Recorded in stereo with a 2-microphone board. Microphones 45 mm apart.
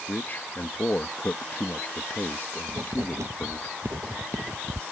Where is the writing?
85° right.